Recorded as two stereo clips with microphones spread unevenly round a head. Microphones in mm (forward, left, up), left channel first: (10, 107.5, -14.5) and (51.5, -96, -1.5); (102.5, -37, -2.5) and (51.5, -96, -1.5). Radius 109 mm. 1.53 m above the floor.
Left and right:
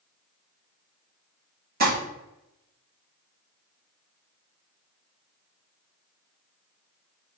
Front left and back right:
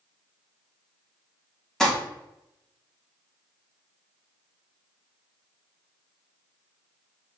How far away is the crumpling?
About 3 m.